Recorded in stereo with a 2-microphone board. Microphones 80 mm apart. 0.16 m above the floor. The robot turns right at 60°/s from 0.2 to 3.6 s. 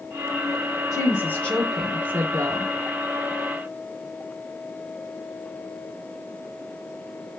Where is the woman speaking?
130° left, 3 m; by 2.7 s 120° right, 3 m.